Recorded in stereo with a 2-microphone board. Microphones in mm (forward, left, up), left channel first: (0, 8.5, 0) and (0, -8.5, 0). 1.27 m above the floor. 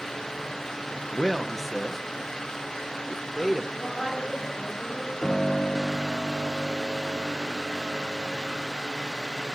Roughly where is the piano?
Left.